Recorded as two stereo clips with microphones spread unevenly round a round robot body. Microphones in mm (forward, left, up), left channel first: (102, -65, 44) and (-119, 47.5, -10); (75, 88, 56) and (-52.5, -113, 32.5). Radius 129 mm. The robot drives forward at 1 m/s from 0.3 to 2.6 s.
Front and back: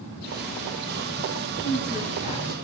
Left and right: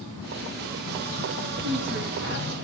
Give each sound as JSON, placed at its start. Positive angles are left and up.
{"t": 1.6, "sound": "a woman speaking", "azimuth_deg": -85, "distance_m": 3.5}